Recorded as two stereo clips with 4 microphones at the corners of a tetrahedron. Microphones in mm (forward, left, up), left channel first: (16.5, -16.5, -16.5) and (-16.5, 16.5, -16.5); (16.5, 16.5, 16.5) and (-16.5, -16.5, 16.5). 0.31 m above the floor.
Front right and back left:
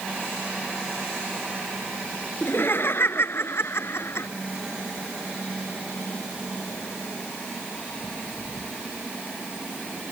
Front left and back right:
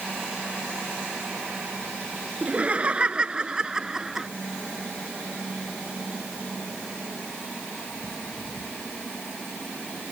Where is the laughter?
75° right; by 4.3 s 55° right.